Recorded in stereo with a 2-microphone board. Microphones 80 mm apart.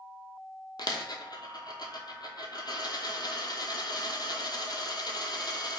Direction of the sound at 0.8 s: 60° left (ahead or behind).